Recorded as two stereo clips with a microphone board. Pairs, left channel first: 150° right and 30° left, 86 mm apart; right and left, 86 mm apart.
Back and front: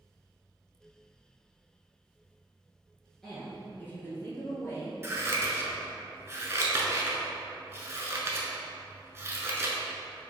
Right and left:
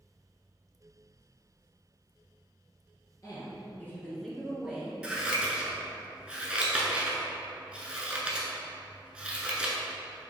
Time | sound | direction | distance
3.2 | a woman speaking | 70° right | 1.4 m
5.0 | scissors | 25° left | 0.6 m